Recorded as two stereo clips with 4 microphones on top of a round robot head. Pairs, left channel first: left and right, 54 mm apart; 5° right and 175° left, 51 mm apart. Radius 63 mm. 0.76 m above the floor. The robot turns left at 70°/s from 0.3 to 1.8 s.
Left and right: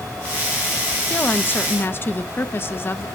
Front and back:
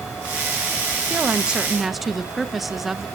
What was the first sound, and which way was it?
A woman speaking, 135° left.